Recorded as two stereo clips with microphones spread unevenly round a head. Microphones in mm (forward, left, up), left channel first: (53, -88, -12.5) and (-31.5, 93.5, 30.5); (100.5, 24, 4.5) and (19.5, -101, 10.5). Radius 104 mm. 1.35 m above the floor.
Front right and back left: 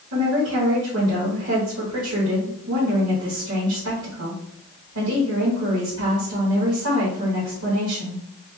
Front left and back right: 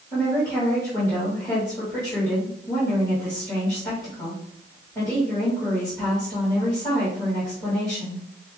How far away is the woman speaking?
About 1.8 m.